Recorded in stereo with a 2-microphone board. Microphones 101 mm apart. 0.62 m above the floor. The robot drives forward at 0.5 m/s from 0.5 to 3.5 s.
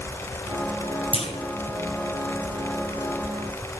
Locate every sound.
1.1 s a clunk: 70° left (ahead or behind), 1.3 m